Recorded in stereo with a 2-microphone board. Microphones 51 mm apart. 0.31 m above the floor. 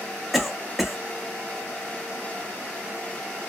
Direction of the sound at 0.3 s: 5° right (ahead or behind).